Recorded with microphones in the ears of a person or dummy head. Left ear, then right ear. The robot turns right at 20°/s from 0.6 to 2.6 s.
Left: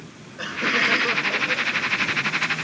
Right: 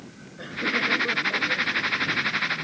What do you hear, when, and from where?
0.4 s laughter: 35° left; by 2.4 s 70° left